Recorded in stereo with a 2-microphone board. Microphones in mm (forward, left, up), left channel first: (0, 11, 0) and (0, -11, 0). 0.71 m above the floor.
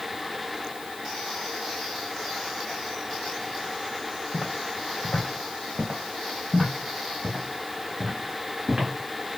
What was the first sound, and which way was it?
Footsteps, 60° left (ahead or behind).